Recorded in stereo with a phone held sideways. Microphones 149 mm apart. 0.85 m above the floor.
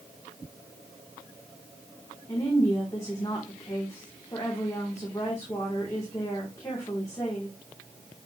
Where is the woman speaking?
20° left (ahead or behind), 2.5 m.